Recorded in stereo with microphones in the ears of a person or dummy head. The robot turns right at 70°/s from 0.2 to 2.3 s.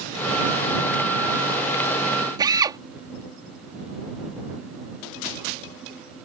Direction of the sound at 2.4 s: 20° right (ahead or behind).